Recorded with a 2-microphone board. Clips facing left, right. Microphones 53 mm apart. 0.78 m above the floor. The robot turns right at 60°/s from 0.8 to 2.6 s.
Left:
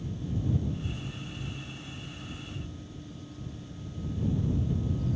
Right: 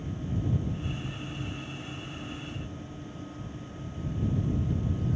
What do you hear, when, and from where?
Only background noise.